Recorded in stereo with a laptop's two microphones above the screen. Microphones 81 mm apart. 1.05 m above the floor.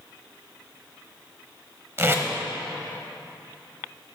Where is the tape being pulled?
30° right (ahead or behind), 0.9 m.